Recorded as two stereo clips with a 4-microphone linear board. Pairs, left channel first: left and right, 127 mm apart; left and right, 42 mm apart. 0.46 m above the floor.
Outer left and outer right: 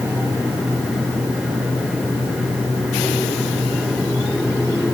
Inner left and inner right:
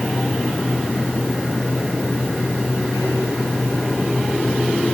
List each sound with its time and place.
Only background noise.